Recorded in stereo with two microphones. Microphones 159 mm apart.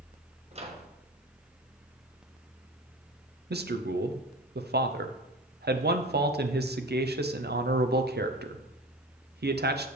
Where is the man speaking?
80° right, 0.7 m.